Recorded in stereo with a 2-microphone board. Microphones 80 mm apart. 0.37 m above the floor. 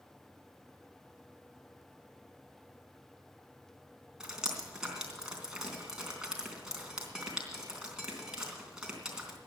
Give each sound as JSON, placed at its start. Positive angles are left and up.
{"t": 4.2, "sound": "dripping", "side_deg": -10, "distance_m": 3.0}